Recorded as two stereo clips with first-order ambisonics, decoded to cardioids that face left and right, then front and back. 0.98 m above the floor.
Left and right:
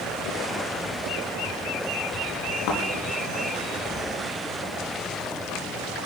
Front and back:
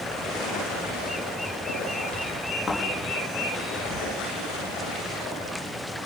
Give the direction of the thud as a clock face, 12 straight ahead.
9 o'clock.